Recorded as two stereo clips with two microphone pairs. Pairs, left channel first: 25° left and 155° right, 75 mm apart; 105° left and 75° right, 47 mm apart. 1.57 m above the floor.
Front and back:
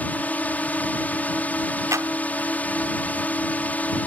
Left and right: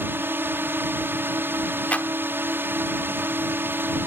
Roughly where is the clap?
Behind.